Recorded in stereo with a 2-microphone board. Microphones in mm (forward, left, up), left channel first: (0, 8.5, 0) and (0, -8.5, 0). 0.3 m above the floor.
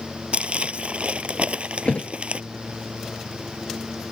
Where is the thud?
80° left.